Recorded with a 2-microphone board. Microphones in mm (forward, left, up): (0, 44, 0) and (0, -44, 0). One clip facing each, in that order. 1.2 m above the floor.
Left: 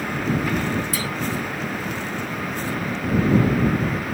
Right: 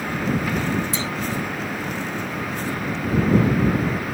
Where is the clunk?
25° right (ahead or behind).